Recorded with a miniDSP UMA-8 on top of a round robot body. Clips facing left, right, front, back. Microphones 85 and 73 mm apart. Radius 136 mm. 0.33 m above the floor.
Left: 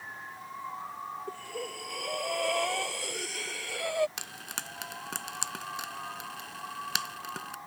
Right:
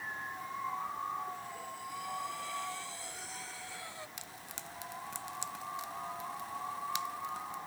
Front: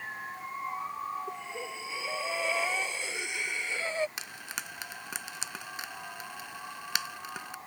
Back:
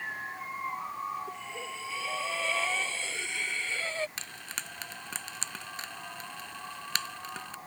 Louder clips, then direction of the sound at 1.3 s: Left 4 dB, front 1 dB; 75° left.